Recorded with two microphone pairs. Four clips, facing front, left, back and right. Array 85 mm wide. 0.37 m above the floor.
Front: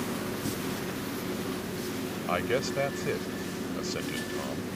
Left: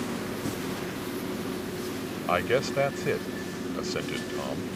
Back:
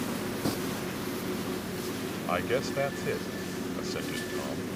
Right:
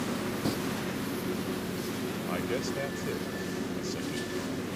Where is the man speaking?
90° left.